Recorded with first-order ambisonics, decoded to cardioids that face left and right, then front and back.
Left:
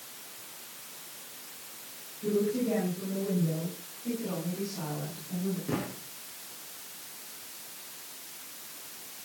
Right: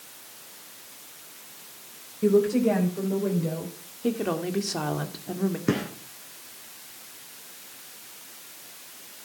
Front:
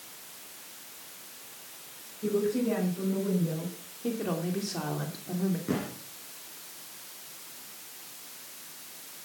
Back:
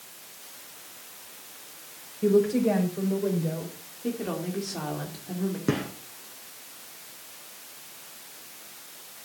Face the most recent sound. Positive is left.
turn(degrees=-125)